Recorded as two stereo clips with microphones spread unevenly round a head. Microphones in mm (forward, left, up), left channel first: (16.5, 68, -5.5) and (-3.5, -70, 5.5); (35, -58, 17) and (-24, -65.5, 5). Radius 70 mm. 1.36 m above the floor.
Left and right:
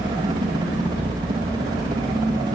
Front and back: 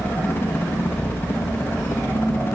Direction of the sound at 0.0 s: 40° right.